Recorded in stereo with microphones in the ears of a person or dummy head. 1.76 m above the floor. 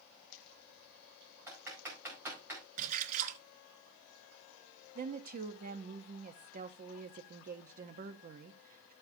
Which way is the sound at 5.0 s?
50° right (ahead or behind).